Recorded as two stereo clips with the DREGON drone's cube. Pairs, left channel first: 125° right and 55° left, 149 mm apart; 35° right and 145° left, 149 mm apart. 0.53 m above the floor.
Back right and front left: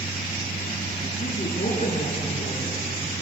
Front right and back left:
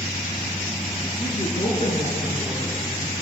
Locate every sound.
1.2 s a woman speaking: 80° right, 6 m